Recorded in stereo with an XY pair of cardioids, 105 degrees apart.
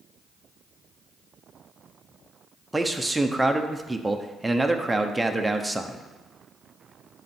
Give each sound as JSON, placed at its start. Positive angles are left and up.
{"t": 2.7, "sound": "a man speaking", "azimuth_deg": -10, "distance_m": 0.9}